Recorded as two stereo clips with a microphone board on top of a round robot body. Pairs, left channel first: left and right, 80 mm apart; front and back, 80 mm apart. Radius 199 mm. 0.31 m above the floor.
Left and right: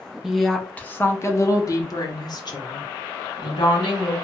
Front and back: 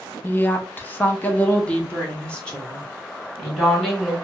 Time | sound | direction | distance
0.2 | a woman speaking | 10° right | 0.9 m